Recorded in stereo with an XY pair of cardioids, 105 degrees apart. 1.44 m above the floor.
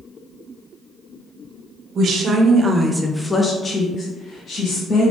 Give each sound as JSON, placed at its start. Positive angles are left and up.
{"t": 1.9, "sound": "a woman speaking", "azimuth_deg": -60, "distance_m": 0.9}